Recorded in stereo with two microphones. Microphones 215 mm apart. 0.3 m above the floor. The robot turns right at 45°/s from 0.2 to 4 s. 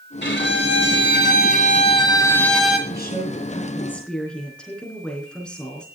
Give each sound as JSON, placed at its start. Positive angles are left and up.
{"t": 0.2, "sound": "a violin", "azimuth_deg": 70, "distance_m": 1.6}
{"t": 2.9, "sound": "a woman speaking", "azimuth_deg": 125, "distance_m": 4.5}